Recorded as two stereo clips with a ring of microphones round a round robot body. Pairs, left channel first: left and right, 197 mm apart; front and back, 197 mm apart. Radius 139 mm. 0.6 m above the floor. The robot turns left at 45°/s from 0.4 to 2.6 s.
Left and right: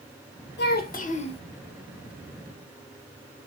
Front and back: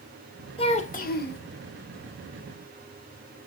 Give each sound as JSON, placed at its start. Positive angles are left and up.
{"t": 0.6, "sound": "a child speaking", "azimuth_deg": 65, "distance_m": 0.8}